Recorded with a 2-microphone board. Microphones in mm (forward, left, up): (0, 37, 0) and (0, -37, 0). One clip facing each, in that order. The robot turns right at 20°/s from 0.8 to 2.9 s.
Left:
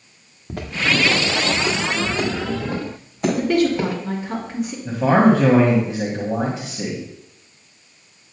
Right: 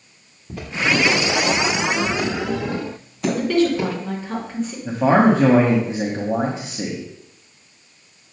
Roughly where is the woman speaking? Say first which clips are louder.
Even; centre.